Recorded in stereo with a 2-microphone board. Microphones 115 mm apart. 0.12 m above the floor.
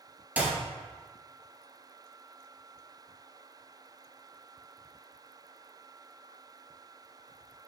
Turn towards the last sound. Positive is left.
turn(degrees=-15)  # may be behind; listen again after turning